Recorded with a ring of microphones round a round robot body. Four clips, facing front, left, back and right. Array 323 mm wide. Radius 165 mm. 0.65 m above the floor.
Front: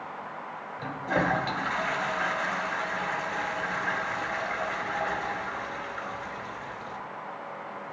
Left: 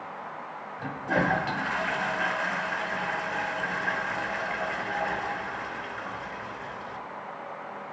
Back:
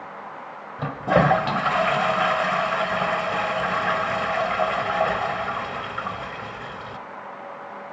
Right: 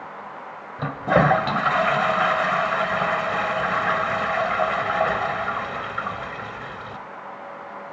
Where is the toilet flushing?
130° right, 1.4 m.